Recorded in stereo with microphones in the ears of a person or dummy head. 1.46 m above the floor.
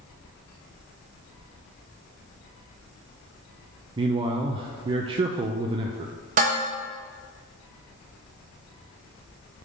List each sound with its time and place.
4.0 s a man speaking: 30° right (ahead or behind), 0.5 m
6.4 s dishes clattering: 40° right (ahead or behind), 1.0 m